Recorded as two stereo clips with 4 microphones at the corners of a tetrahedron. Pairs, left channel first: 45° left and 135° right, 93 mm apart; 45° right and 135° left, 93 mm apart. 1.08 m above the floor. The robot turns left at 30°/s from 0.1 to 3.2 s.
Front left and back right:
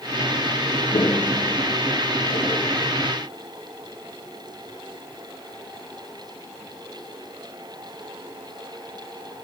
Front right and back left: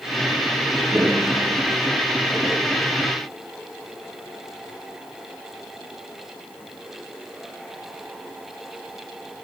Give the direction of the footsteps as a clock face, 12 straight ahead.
10 o'clock.